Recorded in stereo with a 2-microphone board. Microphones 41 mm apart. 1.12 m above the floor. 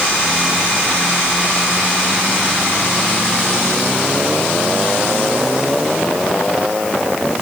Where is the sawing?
No sawing in this recording.